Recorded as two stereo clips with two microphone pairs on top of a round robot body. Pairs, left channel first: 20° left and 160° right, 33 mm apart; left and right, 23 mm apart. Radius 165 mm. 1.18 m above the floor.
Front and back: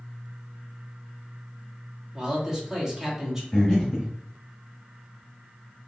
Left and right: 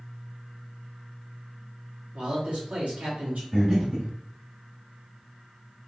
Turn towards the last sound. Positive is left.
turn(degrees=-40)